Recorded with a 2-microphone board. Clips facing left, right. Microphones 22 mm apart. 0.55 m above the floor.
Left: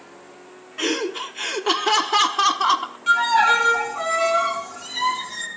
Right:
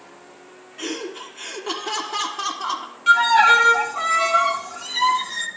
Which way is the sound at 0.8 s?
30° left (ahead or behind).